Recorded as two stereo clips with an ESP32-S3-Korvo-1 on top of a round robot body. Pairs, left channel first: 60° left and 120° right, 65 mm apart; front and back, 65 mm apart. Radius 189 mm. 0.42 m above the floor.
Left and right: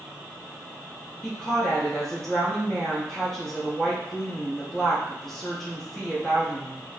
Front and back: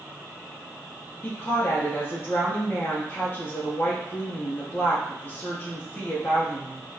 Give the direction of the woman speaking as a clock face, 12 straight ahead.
1 o'clock.